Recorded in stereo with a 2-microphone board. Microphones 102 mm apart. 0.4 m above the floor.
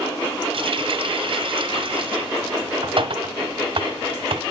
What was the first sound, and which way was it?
A running tap, 60° right (ahead or behind).